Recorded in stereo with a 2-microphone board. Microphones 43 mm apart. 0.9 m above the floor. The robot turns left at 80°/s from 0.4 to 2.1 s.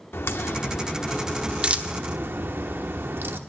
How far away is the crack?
About 1.0 m.